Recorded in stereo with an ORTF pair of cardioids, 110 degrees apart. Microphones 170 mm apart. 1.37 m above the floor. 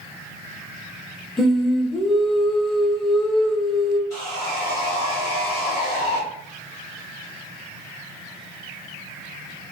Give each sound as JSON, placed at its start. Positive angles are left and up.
{"t": 1.4, "sound": "singing", "azimuth_deg": 5, "distance_m": 0.8}
{"t": 4.1, "sound": "sawing", "azimuth_deg": 70, "distance_m": 2.0}